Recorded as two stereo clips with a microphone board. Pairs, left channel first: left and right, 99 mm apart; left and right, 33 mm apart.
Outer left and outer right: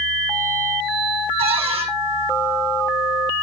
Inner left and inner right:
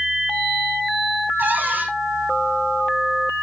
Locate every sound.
1.4 s a cupboard door: 85° right, 5 m